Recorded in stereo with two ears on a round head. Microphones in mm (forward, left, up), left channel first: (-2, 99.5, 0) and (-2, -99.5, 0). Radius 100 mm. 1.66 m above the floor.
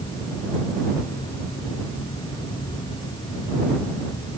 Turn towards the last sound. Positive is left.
No sound to turn to.